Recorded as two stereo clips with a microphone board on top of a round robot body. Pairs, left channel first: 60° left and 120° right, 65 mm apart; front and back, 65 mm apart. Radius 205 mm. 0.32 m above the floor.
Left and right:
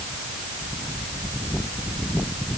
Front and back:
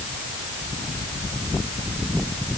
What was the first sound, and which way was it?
Only background noise.